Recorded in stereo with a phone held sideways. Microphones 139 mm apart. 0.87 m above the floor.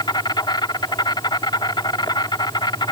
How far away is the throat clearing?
No throat clearing in this recording.